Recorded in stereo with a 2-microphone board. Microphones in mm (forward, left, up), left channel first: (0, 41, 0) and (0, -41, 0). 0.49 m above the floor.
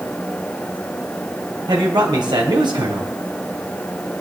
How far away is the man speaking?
About 3 m.